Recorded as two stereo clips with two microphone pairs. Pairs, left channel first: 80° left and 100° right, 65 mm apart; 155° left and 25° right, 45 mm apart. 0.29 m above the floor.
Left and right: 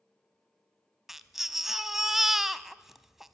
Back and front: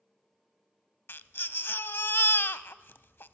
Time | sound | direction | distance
1.1 | a baby crying | straight behind | 0.6 m